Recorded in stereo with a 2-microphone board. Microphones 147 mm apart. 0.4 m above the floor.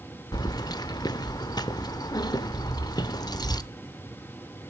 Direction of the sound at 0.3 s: 25° left (ahead or behind).